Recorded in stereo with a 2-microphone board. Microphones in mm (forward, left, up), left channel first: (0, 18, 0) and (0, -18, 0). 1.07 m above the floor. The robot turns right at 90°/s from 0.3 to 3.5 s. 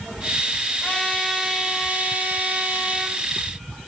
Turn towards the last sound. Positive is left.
turn(degrees=-5)